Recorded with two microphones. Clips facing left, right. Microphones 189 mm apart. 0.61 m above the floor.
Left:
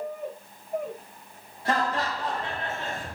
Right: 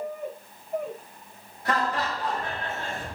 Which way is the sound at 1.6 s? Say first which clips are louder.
Even; 30° left (ahead or behind).